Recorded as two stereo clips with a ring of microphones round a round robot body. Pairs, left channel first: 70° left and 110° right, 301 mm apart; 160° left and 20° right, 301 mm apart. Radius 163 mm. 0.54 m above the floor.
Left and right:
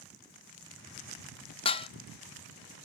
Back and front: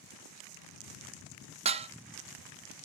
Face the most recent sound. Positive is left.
turn(degrees=20)